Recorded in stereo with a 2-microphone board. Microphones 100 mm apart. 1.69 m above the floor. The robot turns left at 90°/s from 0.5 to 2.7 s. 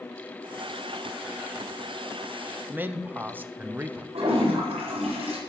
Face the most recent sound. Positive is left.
turn(degrees=-80)